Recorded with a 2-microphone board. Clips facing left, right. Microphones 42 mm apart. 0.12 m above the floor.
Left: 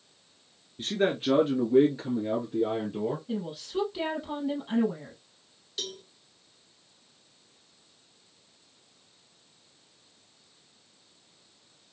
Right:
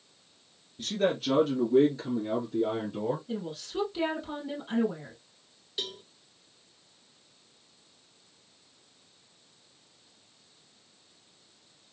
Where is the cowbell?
15° right (ahead or behind), 1.1 m.